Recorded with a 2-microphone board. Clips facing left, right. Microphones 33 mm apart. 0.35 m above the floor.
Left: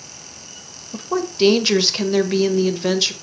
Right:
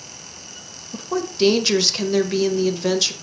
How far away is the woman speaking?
About 1.3 m.